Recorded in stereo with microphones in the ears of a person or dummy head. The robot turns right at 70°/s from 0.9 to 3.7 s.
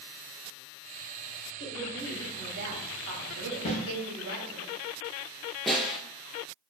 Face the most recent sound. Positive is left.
turn(degrees=0)  # may be behind; listen again after turning